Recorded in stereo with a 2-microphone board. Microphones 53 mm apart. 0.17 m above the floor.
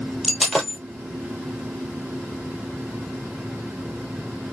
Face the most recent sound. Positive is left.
turn(degrees=0)  # may be behind; listen again after turning